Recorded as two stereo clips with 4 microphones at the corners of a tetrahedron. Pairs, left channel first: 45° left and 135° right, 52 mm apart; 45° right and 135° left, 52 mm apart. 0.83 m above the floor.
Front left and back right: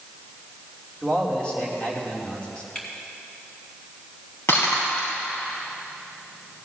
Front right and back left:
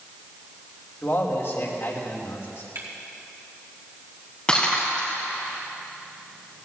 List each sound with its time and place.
1.0 s a man speaking: 20° right, 2.5 m
2.8 s a camera shutter: 120° left, 3 m
4.5 s breaking glass: 25° left, 4 m